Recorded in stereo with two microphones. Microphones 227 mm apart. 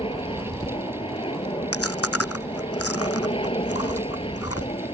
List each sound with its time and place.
0.0 s an aircraft: 20° left (ahead or behind)
1.7 s chewing: 85° left